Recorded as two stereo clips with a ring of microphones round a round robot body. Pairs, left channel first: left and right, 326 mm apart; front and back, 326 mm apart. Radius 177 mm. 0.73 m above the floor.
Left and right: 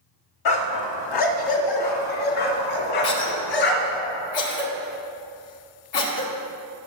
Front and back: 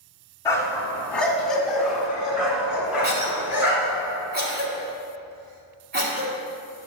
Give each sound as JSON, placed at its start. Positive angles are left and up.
{"t": 0.5, "sound": "a dog barking", "azimuth_deg": 80, "distance_m": 1.2}
{"t": 3.0, "sound": "a cough", "azimuth_deg": 120, "distance_m": 2.0}